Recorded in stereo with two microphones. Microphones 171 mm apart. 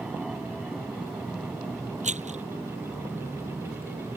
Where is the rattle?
40° right (ahead or behind).